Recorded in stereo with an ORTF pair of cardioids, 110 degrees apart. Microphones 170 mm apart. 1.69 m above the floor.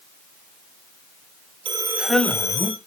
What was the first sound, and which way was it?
A man speaking, 30° right.